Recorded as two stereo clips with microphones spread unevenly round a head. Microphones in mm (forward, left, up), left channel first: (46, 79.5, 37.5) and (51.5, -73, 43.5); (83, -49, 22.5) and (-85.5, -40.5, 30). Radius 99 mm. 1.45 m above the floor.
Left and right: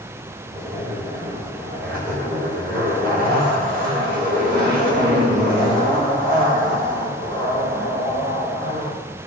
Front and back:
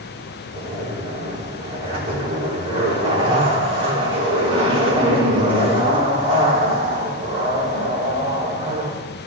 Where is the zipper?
125° right, 4 m.